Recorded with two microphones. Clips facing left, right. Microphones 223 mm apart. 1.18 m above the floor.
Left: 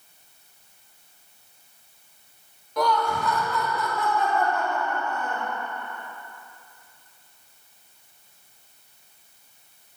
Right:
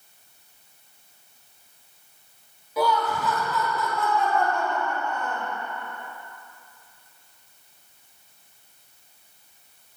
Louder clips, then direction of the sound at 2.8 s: Even; 5° right (ahead or behind).